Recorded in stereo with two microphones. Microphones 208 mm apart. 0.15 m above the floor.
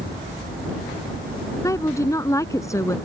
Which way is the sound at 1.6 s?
15° left (ahead or behind).